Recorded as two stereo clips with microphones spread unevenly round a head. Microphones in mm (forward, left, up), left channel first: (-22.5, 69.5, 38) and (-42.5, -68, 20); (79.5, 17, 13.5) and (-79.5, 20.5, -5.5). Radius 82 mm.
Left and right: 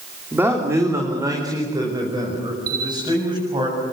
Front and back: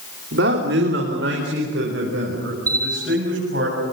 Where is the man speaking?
175° right, 3 m; by 3.7 s 155° right, 8 m.